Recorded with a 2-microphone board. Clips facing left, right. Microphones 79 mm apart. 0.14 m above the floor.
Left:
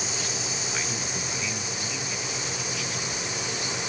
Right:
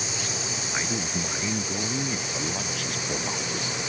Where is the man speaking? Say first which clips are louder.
Right 6 dB; 25° right (ahead or behind); by 3.8 s 60° right (ahead or behind).